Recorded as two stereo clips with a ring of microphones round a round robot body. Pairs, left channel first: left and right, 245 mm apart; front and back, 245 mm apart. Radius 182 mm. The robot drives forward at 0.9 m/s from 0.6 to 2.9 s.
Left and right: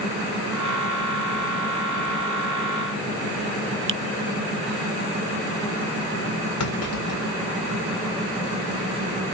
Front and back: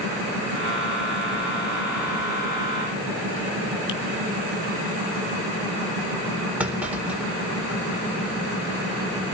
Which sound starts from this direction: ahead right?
A finger snap, at 3.9 s.